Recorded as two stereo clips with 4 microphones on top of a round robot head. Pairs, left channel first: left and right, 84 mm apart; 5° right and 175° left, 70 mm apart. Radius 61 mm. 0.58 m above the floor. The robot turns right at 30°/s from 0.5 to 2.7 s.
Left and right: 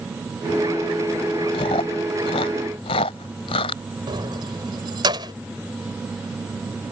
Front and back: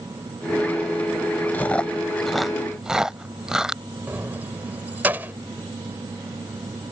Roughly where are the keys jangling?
Behind right.